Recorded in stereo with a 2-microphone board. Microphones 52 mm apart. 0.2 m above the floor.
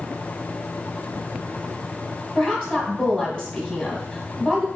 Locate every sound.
2.4 s a woman speaking: 10° left (ahead or behind), 1.4 m